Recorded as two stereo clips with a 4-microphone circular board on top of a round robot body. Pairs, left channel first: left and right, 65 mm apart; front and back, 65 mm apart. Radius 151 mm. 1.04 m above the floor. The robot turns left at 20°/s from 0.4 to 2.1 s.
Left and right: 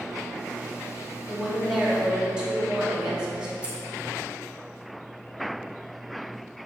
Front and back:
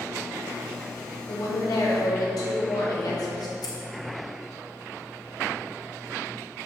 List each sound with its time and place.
1.3 s a woman speaking: 5° left, 3 m; by 3.5 s 15° right, 3 m
3.6 s scissors: 15° right, 1.4 m